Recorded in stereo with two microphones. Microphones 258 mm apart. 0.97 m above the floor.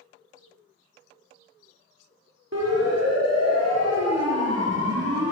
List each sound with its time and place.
2.5 s a siren: 70° right (ahead or behind), 4 m; by 5.3 s 65° right (ahead or behind), 3.5 m